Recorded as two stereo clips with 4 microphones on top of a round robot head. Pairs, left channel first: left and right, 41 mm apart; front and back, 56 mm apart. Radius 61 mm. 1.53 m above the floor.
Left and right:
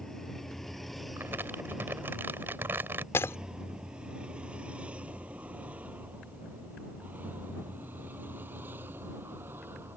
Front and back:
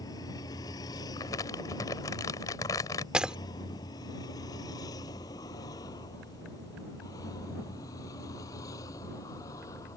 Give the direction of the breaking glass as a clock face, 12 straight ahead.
8 o'clock.